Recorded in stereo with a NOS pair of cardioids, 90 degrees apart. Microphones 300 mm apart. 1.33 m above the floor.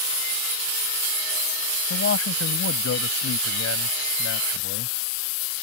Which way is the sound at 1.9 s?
45° left.